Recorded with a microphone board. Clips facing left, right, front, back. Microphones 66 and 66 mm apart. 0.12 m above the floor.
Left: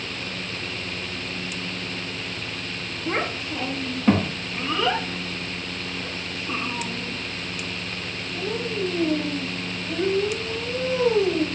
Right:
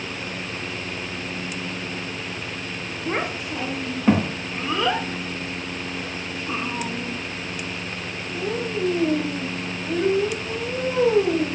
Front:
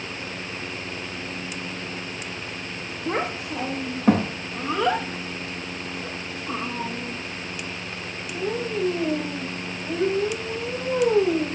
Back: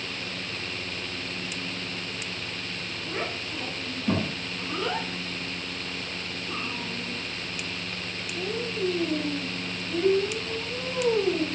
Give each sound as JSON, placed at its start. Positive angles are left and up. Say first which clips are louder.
{"t": 3.1, "sound": "a child speaking", "louder": "even, front 7 dB", "azimuth_deg": -5, "distance_m": 4.0}